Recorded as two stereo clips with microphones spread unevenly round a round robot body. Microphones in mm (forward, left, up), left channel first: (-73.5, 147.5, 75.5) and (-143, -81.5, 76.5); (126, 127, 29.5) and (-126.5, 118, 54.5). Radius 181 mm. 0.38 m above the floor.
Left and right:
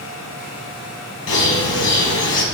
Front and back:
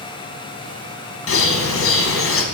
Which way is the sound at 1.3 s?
30° left.